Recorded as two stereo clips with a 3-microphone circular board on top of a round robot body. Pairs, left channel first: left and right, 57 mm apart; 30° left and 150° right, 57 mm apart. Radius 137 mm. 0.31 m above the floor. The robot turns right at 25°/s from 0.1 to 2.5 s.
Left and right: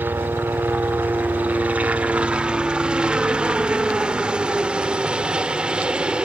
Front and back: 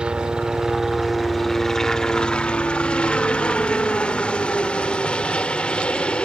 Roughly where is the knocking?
No knocking in this recording.